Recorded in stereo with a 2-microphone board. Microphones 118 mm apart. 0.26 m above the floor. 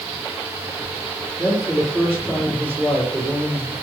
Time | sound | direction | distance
1.4 | a man speaking | 10° right (ahead or behind) | 6.5 m